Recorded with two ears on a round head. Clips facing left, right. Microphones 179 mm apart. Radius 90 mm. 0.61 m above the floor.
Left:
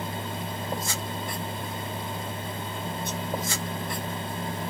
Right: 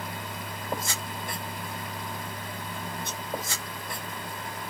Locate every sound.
Only background noise.